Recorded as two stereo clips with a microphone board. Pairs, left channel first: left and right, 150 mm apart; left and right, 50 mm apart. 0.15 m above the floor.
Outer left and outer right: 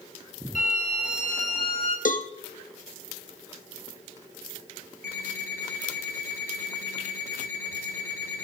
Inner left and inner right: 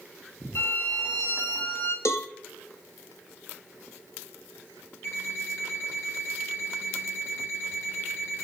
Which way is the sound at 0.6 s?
65° left (ahead or behind).